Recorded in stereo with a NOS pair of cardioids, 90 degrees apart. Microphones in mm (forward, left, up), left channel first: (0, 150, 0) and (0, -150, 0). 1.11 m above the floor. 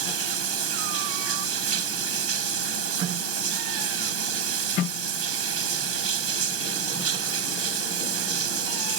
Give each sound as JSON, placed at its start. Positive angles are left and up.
{"t": 0.0, "sound": "running water", "azimuth_deg": -50}